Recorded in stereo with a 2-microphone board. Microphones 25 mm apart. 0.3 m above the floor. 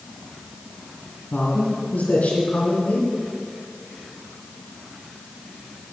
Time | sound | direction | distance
1.3 | a man speaking | 65° left (ahead or behind) | 2.5 m